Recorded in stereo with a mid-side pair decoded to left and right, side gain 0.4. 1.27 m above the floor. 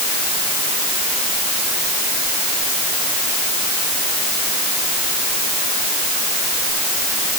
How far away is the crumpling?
I don't hear crumpling.